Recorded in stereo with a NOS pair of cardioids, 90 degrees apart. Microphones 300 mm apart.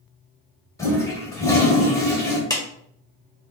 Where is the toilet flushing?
10° left, 1.7 m.